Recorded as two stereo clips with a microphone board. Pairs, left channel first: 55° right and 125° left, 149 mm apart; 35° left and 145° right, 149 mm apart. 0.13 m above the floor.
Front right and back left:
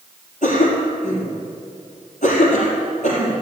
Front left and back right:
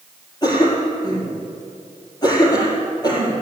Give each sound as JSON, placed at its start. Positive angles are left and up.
{"t": 0.4, "sound": "a cough", "azimuth_deg": -25, "distance_m": 4.5}